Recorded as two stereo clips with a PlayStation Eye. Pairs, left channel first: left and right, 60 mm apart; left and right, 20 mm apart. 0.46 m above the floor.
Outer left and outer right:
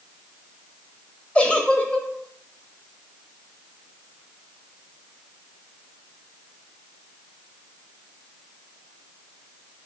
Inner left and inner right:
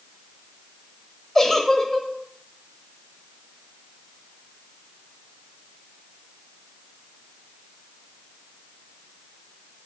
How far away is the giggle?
About 0.5 m.